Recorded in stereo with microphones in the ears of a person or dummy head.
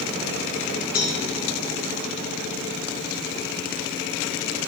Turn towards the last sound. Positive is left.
turn(degrees=20)  # may be behind; listen again after turning